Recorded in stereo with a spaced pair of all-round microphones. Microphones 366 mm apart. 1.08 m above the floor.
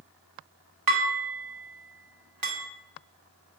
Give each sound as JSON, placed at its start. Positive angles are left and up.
{"t": 0.9, "sound": "dishes clattering", "side_deg": -60, "distance_m": 1.3}